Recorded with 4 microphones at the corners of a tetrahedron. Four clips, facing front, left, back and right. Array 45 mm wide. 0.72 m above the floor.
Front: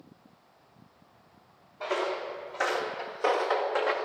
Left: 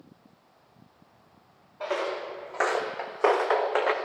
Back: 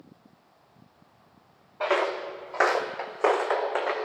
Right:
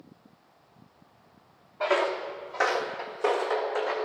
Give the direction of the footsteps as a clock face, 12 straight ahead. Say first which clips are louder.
Right 4 dB, back 5 dB; 5 o'clock.